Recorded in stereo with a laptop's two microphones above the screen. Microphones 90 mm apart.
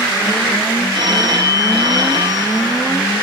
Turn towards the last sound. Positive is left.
turn(degrees=-65)  # may be behind; listen again after turning